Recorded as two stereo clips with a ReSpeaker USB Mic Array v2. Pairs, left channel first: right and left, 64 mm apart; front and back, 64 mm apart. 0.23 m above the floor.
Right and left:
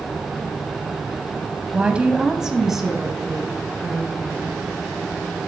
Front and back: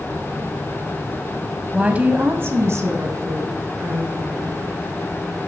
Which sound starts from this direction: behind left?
A woman speaking, at 1.7 s.